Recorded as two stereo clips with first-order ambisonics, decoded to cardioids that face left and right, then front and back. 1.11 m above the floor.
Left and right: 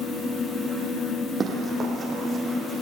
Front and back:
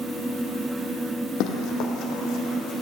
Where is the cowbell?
No cowbell in this recording.